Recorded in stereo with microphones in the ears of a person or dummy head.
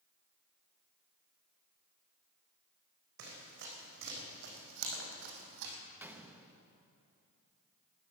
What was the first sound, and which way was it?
Running footsteps, 65° right (ahead or behind).